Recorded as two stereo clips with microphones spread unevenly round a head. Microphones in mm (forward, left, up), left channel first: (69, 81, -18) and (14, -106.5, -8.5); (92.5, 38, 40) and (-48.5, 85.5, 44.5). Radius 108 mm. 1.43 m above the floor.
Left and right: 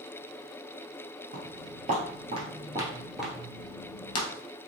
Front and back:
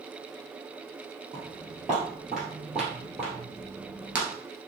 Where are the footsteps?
110° right, 2 m; by 4.3 s 95° left, 1.5 m.